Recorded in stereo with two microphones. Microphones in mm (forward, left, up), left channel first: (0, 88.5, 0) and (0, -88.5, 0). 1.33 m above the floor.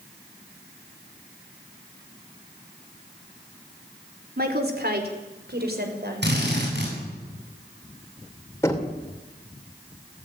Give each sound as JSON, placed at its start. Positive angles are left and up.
{"t": 4.4, "sound": "a woman speaking", "side_deg": -65, "distance_m": 4.0}
{"t": 6.2, "sound": "a drill", "side_deg": -85, "distance_m": 8.5}
{"t": 8.6, "sound": "knocking", "side_deg": 15, "distance_m": 3.0}